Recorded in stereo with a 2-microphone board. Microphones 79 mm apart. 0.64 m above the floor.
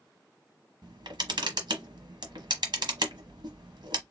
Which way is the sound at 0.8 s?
75° right (ahead or behind).